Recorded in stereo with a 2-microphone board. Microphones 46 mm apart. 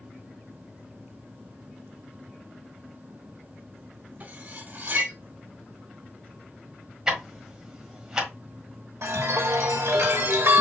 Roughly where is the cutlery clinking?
Right.